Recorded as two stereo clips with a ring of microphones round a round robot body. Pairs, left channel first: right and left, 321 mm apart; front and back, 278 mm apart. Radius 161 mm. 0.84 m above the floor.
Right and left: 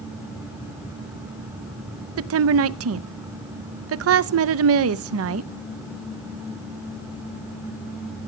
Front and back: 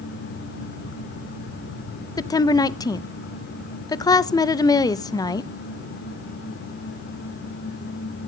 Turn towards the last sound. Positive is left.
turn(degrees=70)